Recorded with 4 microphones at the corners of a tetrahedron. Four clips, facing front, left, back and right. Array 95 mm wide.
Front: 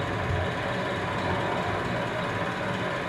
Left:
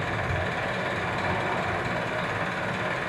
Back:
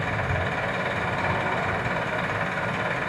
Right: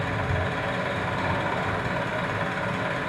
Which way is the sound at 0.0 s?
175° right.